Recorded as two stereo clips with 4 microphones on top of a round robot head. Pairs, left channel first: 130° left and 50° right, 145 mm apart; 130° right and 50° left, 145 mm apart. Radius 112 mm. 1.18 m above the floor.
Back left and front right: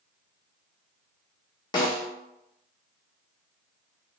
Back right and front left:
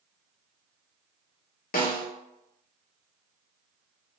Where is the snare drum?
165° right, 0.9 m.